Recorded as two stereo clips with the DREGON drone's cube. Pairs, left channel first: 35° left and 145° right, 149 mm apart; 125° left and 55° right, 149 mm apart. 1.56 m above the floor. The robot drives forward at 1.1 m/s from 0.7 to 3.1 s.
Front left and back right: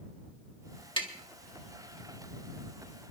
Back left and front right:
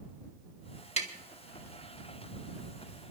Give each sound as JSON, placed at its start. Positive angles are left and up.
{"t": 1.0, "sound": "tapping", "azimuth_deg": 85, "distance_m": 1.9}